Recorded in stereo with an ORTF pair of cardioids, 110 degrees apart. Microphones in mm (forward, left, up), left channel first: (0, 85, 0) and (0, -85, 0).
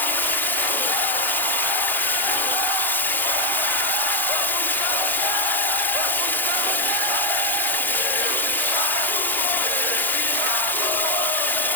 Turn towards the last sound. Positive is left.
turn(degrees=10)